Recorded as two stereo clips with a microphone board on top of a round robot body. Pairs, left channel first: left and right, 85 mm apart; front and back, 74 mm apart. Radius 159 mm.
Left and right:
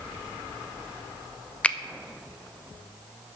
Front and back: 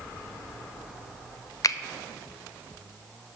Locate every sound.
1.6 s a finger snap: 15° left, 0.5 m